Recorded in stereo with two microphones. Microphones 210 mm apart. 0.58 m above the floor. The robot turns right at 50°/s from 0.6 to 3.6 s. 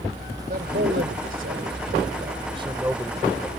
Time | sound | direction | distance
0.5 | a man speaking | 125° right | ?